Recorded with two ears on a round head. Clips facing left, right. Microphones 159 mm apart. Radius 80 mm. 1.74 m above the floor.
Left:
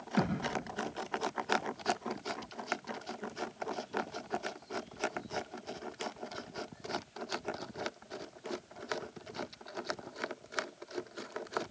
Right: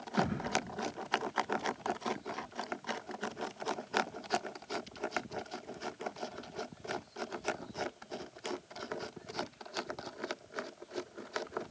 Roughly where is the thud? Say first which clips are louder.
Even; left.